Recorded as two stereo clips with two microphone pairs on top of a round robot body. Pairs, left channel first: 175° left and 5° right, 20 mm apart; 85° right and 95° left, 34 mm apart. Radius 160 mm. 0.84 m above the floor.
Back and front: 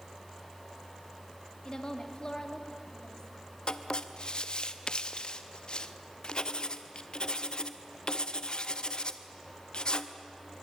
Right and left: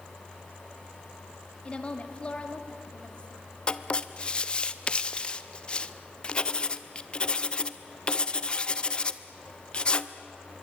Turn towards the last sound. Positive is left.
turn(degrees=-145)